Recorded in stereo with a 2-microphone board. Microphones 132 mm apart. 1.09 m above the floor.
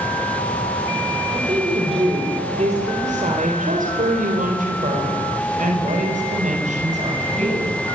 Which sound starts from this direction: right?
A woman speaking, at 1.3 s.